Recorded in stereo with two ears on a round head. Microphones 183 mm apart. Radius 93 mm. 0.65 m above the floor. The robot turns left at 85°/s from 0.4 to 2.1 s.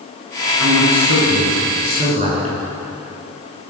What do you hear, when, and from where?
0.6 s a man speaking: 15° right, 9 m; by 2.6 s 140° right, 9 m